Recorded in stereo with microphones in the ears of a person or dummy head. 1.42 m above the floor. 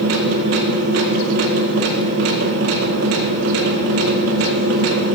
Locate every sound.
0.0 s a machine running: 60° right (ahead or behind), 1.7 m